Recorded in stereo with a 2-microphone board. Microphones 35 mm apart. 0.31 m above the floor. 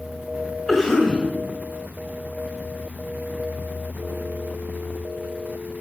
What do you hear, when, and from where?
0.7 s a cough: 5° left (ahead or behind), 1.9 m